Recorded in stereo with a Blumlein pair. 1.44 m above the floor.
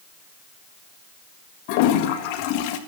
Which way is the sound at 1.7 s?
45° left.